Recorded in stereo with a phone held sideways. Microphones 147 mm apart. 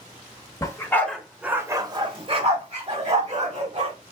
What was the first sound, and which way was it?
A dog barking, 25° left (ahead or behind).